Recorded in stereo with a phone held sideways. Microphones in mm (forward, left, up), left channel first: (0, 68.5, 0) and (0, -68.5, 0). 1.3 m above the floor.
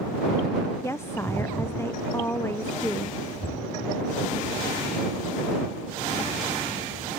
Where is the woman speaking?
15° left (ahead or behind).